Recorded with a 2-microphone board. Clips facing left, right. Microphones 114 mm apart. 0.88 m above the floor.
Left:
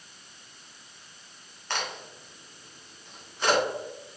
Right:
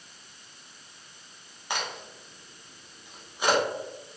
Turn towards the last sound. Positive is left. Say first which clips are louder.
# even
turn(degrees=-15)  # may be behind; listen again after turning